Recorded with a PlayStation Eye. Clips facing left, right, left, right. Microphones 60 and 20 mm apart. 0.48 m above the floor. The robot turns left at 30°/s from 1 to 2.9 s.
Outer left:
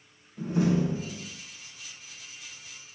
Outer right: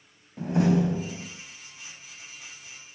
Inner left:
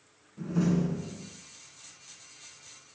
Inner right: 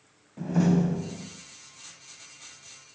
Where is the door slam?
70° right (ahead or behind), 3 m; by 1.3 s 65° right (ahead or behind), 3 m.